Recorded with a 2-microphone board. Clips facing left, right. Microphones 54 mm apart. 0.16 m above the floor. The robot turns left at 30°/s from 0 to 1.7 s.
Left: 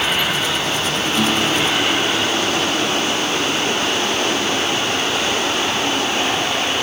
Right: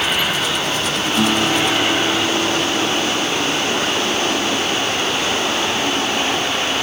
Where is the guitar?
5° right (ahead or behind); by 3.5 s 25° right (ahead or behind).